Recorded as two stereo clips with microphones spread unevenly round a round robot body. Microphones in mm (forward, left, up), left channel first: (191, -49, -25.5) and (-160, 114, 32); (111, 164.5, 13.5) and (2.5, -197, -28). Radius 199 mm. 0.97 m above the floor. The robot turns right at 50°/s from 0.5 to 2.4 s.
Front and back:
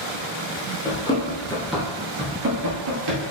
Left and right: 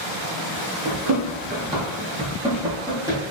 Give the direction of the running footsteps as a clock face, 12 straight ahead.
4 o'clock.